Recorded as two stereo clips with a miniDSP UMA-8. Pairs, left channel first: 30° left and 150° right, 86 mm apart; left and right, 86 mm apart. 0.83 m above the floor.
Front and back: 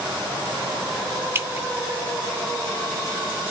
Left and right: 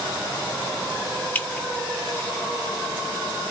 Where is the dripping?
155° left, 0.6 m.